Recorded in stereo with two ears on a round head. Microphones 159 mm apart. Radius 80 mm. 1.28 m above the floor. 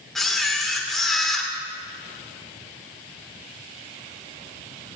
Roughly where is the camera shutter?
Centre.